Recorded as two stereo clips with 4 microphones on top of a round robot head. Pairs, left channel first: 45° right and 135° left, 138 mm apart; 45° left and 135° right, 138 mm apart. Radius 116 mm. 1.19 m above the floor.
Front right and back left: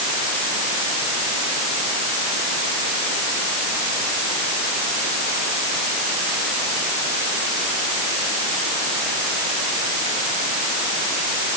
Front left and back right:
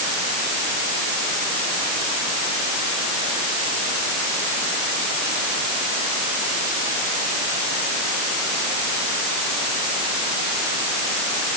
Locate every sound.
Only background noise.